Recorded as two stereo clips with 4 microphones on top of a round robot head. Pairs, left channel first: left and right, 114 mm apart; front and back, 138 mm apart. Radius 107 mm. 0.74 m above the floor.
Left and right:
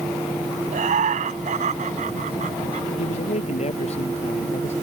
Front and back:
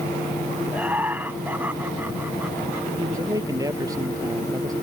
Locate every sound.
0.7 s laughter: 100° right
3.0 s a man speaking: 115° left